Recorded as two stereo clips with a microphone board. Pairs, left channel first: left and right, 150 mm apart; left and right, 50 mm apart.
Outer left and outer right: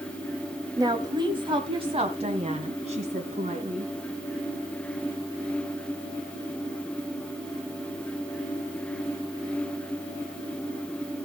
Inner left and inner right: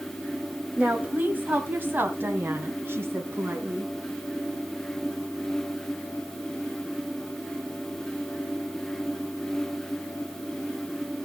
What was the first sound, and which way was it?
A woman speaking, 25° right (ahead or behind).